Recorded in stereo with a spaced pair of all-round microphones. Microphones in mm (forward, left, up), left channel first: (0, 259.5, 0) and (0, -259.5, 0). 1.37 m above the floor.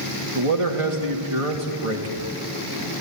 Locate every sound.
0.3 s a man speaking: 75° right (ahead or behind), 3 m